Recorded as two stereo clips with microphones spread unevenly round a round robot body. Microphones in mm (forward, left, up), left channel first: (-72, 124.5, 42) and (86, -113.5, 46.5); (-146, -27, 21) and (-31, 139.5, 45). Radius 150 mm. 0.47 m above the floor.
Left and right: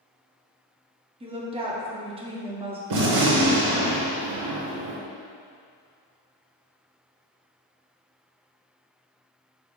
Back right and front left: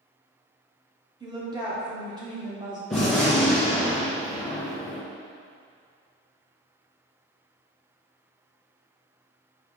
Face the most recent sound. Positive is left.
turn(degrees=-35)